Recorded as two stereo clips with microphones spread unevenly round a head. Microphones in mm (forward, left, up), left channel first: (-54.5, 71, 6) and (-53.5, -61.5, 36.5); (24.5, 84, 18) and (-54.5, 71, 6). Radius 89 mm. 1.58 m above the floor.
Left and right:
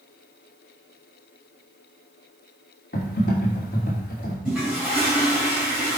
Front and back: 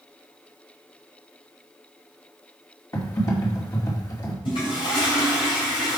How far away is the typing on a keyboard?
About 2.5 m.